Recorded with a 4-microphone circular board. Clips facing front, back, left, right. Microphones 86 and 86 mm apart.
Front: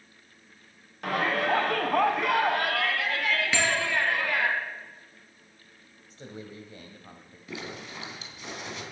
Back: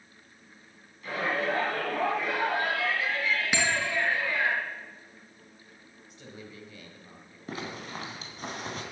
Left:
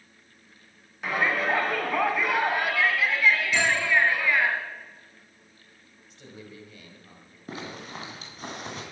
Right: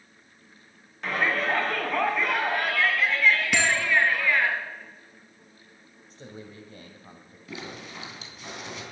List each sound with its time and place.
1.0 s a shout: 5° left, 2.5 m
3.5 s a bell: 105° right, 3.5 m
6.1 s a man speaking: 45° right, 1.9 m
7.5 s a zipper: 135° left, 2.5 m